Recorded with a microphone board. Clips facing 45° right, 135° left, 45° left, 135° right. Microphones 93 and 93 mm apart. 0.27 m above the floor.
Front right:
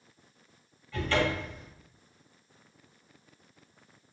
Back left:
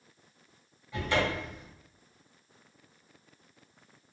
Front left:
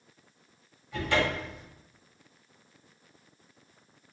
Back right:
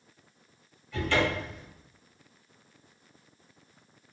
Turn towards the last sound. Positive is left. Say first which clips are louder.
# front right 1 dB, back right 1 dB
turn(degrees=95)